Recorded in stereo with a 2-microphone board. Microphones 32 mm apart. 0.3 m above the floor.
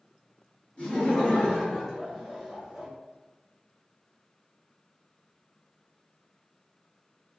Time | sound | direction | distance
0.8 | laughter | 35° left (ahead or behind) | 1.6 m